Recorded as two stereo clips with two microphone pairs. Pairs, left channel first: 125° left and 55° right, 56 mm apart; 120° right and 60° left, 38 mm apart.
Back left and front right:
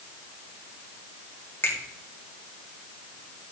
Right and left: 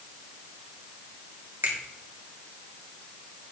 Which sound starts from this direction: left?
A finger snap, at 1.6 s.